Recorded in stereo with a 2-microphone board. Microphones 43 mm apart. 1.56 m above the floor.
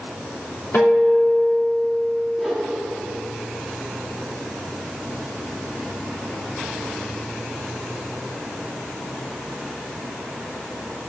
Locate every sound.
0.7 s a guitar: 65° left (ahead or behind), 3.5 m
2.4 s a whoosh: 5° left (ahead or behind), 2 m